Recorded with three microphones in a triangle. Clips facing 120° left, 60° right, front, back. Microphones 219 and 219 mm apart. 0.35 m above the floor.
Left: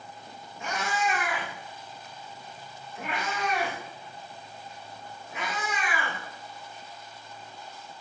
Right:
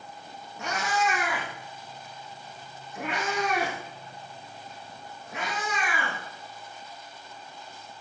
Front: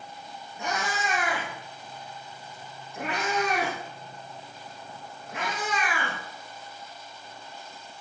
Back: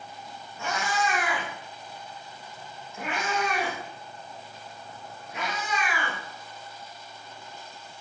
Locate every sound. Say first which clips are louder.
0.6 s a cat meowing: right 2 dB, back 2 dB; 75° right, 6 m; by 6.2 s 35° right, 8 m